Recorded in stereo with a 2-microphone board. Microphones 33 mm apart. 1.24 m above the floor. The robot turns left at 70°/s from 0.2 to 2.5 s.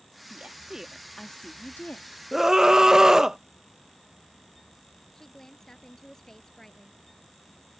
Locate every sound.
0.3 s a woman speaking: 130° right; by 2.2 s 95° left
2.3 s a scream: 5° right (ahead or behind); by 3.4 s 15° right (ahead or behind)
5.1 s a woman speaking: 15° left (ahead or behind)